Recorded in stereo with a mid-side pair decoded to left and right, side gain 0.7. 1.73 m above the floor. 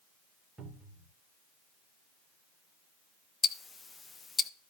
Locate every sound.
0.6 s a cupboard door: 20° right, 3.5 m
3.4 s ticking: 20° left, 0.7 m